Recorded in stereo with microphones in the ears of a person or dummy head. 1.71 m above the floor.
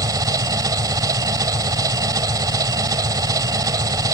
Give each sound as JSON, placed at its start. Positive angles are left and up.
{"t": 0.0, "sound": "an engine running", "side_deg": -25}